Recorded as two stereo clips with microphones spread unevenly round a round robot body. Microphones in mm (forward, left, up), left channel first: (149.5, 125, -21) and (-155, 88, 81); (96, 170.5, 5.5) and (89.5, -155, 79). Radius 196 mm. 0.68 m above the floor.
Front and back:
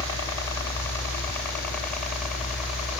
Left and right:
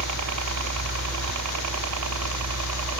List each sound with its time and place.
0.0 s a helicopter: 60° right; by 3.0 s 80° right